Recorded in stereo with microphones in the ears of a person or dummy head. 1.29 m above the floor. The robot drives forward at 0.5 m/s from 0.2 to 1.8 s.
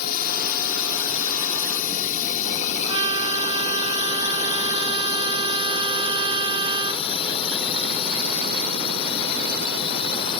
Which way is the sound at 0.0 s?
50° left (ahead or behind).